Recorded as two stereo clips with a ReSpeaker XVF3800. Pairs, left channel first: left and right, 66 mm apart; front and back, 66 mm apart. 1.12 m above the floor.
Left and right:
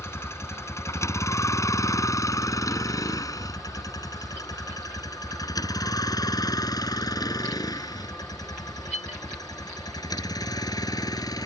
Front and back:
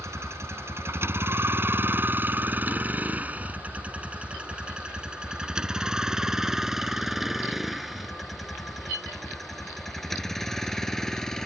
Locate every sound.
0.0 s a vehicle: 135° left; by 11.5 s 80° left